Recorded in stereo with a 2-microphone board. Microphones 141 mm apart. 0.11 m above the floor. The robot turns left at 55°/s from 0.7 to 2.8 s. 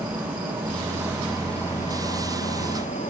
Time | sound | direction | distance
0.0 | an insect | 145° right | 5.5 m